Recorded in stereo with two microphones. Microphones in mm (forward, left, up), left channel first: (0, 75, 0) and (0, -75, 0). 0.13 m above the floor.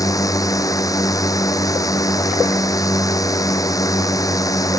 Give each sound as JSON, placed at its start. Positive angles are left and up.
{"t": 0.0, "sound": "a drone", "side_deg": 20}